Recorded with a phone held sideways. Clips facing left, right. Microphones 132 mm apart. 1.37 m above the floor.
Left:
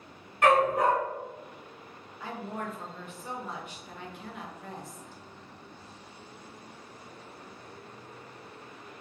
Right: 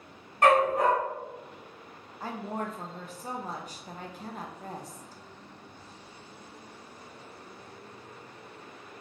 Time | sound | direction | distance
0.4 | a dog barking | 40° right (ahead or behind) | 1.7 m
2.2 | a woman speaking | 40° right (ahead or behind) | 0.6 m